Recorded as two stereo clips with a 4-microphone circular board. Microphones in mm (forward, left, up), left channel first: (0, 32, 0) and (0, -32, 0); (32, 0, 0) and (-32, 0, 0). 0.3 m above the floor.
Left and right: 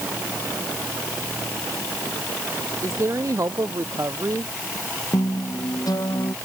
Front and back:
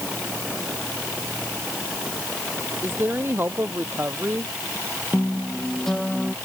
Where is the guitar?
85° left.